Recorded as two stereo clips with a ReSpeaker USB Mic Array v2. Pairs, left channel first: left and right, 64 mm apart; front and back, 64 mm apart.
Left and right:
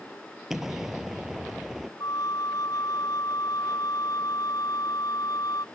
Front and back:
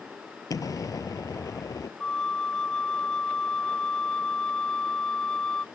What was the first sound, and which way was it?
An explosion, 10° right.